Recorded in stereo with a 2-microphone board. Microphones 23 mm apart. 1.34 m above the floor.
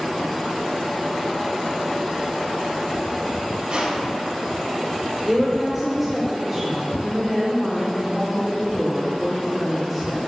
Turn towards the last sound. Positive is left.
turn(degrees=-5)  # may be behind; listen again after turning